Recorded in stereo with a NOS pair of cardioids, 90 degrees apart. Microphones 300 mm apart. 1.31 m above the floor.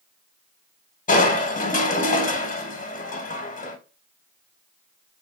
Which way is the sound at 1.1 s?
25° left.